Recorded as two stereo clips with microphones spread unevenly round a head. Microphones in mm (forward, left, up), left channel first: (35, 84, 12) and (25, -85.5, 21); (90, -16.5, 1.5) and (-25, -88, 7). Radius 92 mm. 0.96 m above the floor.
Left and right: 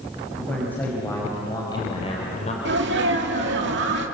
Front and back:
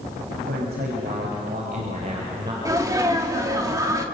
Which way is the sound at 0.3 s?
170° left.